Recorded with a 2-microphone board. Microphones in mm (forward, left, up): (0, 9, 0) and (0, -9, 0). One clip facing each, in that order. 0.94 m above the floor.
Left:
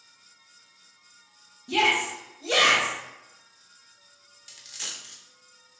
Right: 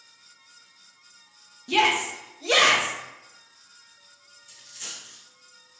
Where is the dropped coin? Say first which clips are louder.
Left 3 dB; 60° left (ahead or behind), 1.1 m.